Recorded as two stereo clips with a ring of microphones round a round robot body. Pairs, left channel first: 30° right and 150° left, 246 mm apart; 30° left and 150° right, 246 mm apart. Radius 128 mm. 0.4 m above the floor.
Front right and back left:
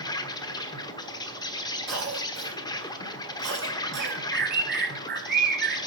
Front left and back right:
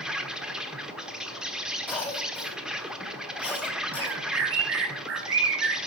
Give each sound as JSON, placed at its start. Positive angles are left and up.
{"t": 0.0, "sound": "an insect", "azimuth_deg": -70, "distance_m": 1.2}
{"t": 1.9, "sound": "a cough", "azimuth_deg": 115, "distance_m": 3.5}
{"t": 4.0, "sound": "a bird", "azimuth_deg": -170, "distance_m": 2.5}